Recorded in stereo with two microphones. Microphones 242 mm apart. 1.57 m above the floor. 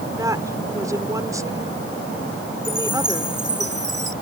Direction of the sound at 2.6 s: 45° right (ahead or behind).